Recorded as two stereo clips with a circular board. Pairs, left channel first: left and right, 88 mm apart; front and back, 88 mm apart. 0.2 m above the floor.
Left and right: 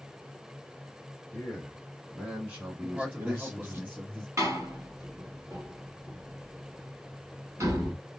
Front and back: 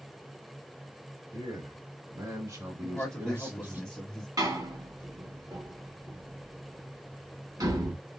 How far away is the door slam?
About 3 m.